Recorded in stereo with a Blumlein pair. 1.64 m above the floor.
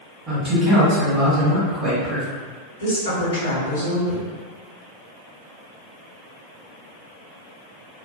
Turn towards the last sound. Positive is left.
turn(degrees=70)